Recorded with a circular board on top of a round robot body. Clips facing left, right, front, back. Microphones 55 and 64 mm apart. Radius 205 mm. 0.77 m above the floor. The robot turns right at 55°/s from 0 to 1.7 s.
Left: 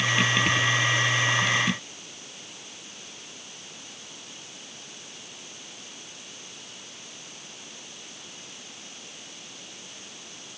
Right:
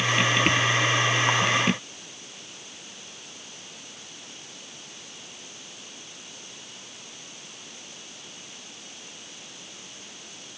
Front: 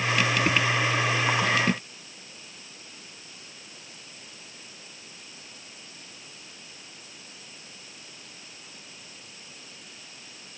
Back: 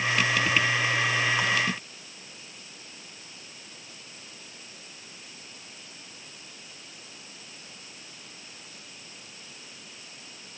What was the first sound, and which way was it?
Only background noise.